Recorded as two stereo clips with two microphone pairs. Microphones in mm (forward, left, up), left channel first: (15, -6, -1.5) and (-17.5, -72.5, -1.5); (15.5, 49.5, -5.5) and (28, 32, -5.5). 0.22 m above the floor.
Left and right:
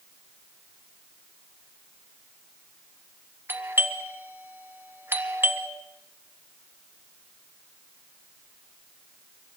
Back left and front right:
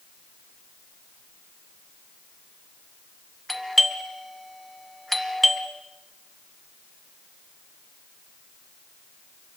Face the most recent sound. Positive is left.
turn(degrees=-155)